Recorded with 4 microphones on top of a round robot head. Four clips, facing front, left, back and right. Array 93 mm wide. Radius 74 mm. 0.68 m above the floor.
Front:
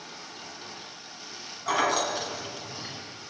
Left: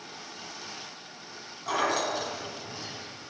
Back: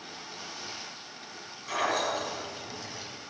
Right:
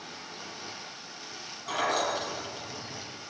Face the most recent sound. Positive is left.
turn(degrees=15)